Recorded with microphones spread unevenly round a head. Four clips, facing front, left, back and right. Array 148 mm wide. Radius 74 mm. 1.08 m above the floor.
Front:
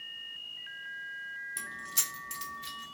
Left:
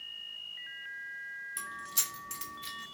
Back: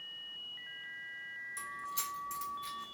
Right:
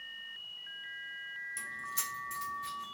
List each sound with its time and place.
1.6 s keys jangling: straight ahead, 0.5 m; by 2.9 s 85° left, 0.8 m